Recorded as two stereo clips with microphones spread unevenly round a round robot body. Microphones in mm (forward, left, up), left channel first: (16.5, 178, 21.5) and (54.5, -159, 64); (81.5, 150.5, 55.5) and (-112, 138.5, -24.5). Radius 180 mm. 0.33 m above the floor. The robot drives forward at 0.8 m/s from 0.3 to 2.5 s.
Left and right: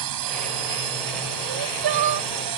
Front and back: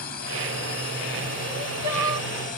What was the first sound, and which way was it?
A drone, 65° right.